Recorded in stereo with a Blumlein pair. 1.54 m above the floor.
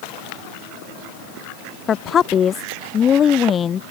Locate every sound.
1.9 s a woman speaking: 25° left